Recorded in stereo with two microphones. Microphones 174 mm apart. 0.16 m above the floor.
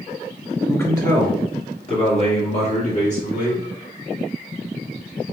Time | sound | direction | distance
0.7 | a man speaking | 10° left (ahead or behind) | 1.1 m